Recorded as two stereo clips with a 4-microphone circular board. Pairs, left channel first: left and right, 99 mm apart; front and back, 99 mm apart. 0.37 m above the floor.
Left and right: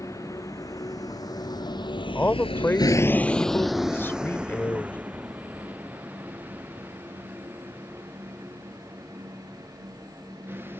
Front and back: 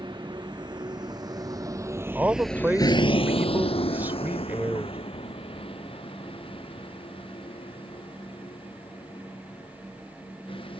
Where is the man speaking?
130° left.